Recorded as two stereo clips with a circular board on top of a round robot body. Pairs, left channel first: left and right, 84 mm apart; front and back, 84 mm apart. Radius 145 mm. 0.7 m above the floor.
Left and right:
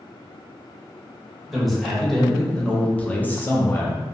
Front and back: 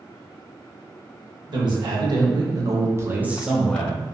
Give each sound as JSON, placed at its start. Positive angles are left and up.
{"t": 1.5, "sound": "a man speaking", "azimuth_deg": 180, "distance_m": 1.3}